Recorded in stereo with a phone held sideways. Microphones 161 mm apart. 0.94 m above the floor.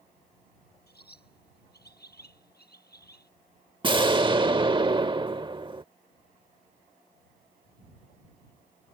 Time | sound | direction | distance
0.9 | a bird | 80° left | ?
3.8 | an explosion | 30° right (ahead or behind) | ?